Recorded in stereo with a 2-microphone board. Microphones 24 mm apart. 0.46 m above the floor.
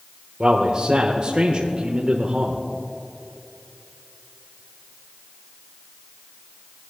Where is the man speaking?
45° right (ahead or behind), 1.0 m.